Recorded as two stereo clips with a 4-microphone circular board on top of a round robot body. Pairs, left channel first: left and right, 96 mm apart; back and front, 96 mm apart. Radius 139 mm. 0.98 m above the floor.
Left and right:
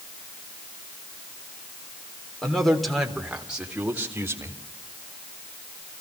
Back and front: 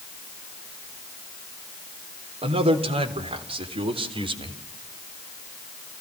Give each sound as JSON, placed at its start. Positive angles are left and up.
{"t": 2.4, "sound": "a man speaking", "azimuth_deg": 5, "distance_m": 4.0}